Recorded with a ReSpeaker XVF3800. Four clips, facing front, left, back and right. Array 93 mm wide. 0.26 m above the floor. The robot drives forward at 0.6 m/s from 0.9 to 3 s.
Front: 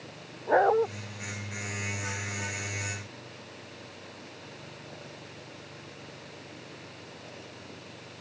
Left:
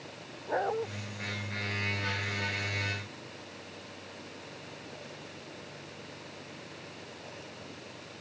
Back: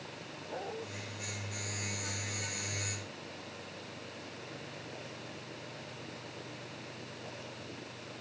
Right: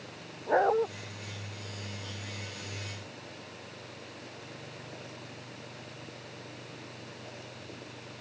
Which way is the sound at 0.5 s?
25° right.